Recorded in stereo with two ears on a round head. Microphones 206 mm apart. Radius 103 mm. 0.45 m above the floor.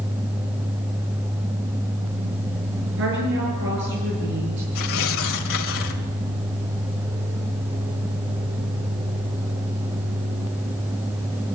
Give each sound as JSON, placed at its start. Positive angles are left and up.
{"t": 3.0, "sound": "a woman speaking", "side_deg": -55, "distance_m": 8.0}
{"t": 4.8, "sound": "tearing paper", "side_deg": 60, "distance_m": 2.5}